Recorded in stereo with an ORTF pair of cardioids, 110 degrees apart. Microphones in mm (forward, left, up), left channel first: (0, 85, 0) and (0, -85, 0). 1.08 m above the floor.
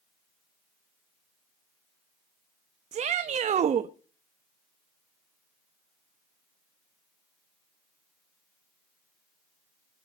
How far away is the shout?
About 1.1 m.